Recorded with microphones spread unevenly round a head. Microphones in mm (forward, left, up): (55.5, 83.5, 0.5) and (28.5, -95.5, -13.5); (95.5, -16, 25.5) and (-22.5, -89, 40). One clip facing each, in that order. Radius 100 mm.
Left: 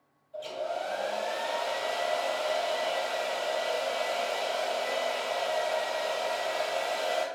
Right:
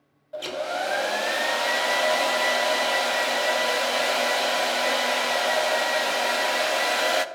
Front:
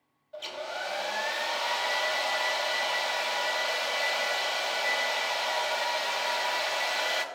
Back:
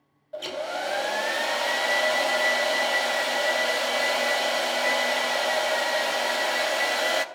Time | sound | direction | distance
0.3 | a hair dryer | 115° right | 0.6 m